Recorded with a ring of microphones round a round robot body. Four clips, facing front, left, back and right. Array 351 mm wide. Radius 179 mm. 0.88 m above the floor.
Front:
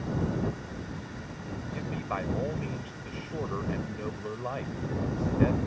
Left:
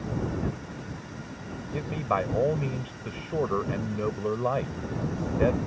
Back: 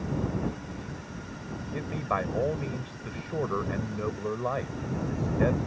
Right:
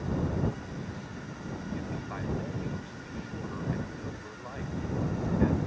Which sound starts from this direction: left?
A man speaking, at 1.7 s.